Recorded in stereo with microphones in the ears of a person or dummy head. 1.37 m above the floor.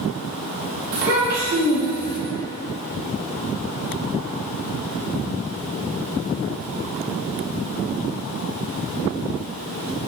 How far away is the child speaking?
About 1.4 m.